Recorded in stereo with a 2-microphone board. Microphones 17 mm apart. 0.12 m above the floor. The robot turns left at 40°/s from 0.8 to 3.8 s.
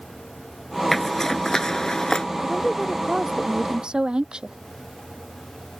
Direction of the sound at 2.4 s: 5° right.